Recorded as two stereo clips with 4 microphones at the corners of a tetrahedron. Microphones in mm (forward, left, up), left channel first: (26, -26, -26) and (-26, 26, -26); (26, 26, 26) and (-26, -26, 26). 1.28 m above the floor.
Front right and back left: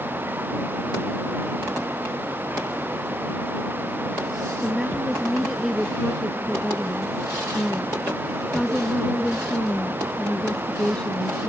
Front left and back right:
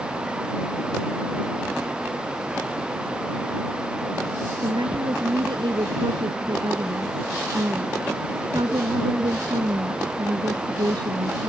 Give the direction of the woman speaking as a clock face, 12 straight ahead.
5 o'clock.